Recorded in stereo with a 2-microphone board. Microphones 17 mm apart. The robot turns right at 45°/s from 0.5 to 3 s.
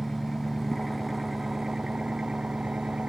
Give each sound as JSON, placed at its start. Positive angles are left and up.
{"t": 0.0, "sound": "an engine running", "azimuth_deg": 160}